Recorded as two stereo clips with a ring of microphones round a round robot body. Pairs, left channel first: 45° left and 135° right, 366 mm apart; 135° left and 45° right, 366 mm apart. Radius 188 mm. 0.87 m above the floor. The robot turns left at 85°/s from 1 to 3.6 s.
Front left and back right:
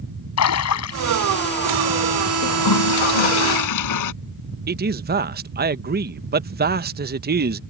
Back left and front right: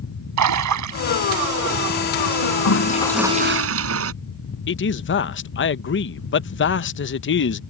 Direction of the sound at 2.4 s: 105° left.